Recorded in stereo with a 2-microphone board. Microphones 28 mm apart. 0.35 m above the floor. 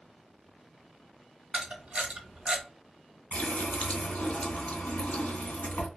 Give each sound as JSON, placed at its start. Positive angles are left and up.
{"t": 1.5, "sound": "a camera shutter", "side_deg": -45, "distance_m": 0.9}
{"t": 3.3, "sound": "a running tap", "side_deg": 70, "distance_m": 1.7}